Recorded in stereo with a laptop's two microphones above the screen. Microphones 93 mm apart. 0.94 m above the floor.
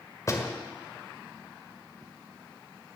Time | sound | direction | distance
0.3 | a door slam | 35° left (ahead or behind) | 2 m